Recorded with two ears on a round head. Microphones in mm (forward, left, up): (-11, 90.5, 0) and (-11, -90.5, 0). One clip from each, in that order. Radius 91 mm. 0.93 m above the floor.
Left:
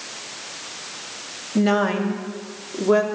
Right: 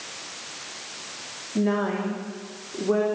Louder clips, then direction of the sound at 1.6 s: Left 5 dB; 70° left (ahead or behind).